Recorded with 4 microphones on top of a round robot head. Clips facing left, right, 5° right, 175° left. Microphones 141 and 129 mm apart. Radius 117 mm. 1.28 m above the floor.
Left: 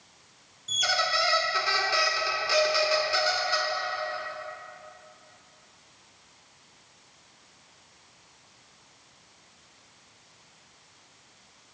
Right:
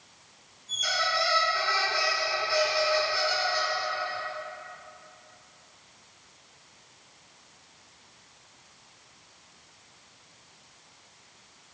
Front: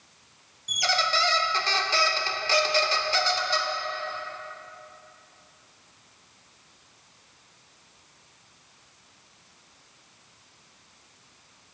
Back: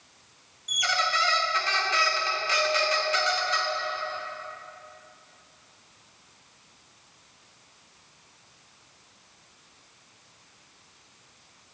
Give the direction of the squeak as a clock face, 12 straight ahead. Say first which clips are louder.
Left 2 dB, front 2 dB; 10 o'clock.